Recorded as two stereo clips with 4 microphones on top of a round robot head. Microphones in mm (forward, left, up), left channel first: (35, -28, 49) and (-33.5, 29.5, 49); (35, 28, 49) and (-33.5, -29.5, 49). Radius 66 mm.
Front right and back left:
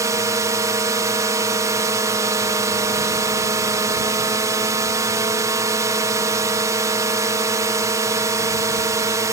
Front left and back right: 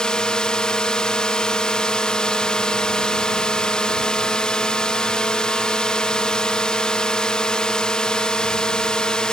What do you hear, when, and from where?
0.0 s a drone: 120° left